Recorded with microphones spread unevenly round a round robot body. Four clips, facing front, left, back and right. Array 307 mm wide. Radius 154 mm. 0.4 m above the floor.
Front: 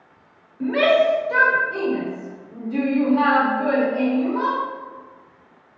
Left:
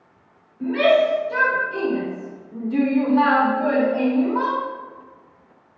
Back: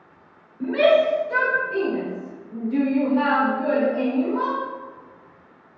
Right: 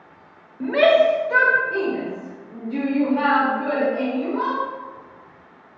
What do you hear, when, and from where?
0.6 s a shout: 80° right, 1.6 m; by 4.6 s 120° left, 1.5 m